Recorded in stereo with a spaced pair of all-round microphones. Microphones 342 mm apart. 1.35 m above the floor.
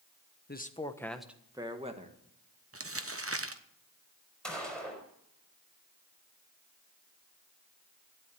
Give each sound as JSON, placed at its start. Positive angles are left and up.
{"t": 0.5, "sound": "a man speaking", "side_deg": 30, "distance_m": 1.1}
{"t": 2.7, "sound": "crumpling", "side_deg": -40, "distance_m": 1.0}
{"t": 4.4, "sound": "a gunshot", "side_deg": 0, "distance_m": 4.5}